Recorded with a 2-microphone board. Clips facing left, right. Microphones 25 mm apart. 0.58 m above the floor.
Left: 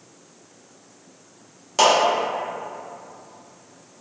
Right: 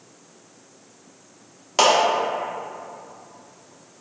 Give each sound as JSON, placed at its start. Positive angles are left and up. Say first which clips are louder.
{"t": 1.8, "sound": "a clap", "louder": "even", "side_deg": -20, "distance_m": 0.7}